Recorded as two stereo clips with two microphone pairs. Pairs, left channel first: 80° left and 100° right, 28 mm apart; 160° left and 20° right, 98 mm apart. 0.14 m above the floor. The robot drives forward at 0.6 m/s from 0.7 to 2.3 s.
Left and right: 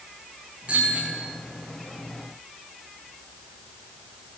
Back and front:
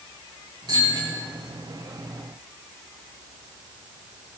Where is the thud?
No thud in this recording.